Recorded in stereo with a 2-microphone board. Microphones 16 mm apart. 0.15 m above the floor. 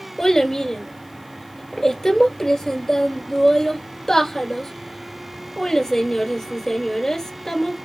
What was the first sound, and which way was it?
A child speaking, 35° left (ahead or behind).